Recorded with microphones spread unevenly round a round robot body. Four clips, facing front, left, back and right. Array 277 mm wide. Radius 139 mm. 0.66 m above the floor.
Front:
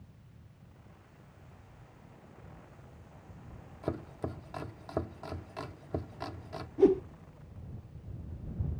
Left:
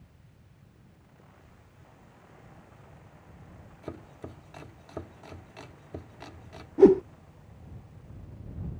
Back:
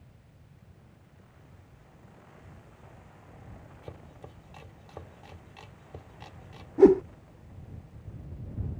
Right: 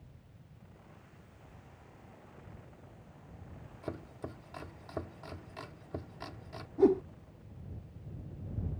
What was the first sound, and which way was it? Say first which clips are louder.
Chopping: even, front 12 dB; 5° right.